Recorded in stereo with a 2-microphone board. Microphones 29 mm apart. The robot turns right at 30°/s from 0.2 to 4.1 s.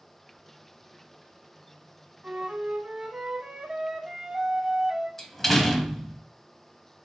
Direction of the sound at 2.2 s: 85° right.